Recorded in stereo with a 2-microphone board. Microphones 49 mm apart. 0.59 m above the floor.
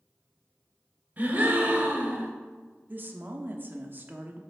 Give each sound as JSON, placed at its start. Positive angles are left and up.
{"t": 1.2, "sound": "a gasp", "side_deg": -35, "distance_m": 1.2}
{"t": 2.9, "sound": "a woman speaking", "side_deg": -40, "distance_m": 0.7}